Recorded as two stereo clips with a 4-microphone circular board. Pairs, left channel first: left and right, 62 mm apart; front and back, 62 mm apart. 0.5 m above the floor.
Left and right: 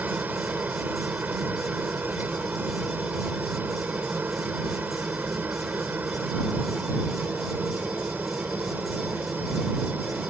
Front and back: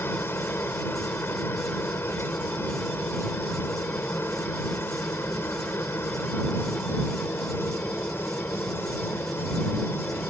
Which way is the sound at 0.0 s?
35° right.